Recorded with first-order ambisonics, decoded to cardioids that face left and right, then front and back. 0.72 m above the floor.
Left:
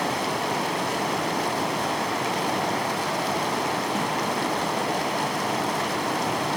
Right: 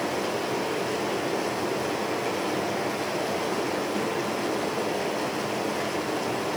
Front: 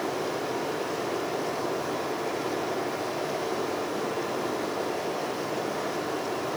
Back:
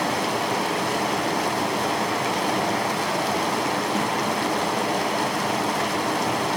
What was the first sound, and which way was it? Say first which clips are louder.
Running water: left 2 dB, back 6 dB; 150° left.